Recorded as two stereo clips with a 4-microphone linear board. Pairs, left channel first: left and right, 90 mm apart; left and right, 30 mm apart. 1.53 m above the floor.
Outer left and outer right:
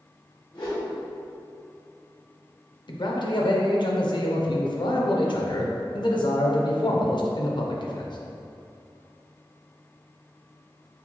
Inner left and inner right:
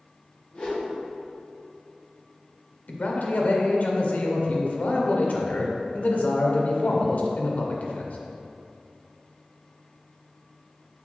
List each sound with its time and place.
0.5 s a whoosh: 60° left (ahead or behind), 1.5 m
2.9 s a man speaking: 60° left (ahead or behind), 0.7 m